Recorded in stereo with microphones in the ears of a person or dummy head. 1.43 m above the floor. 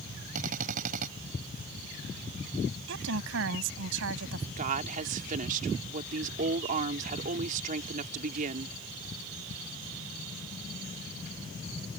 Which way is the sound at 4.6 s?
40° right (ahead or behind).